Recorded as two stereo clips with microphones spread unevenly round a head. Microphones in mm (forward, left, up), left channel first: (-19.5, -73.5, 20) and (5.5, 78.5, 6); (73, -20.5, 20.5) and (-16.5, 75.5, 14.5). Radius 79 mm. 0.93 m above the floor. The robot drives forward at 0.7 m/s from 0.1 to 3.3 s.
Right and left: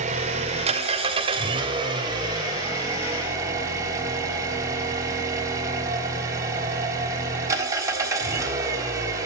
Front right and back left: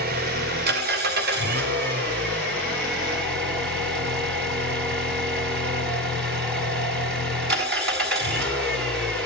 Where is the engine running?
130° left, 2.5 m; by 9.3 s 155° left, 4 m.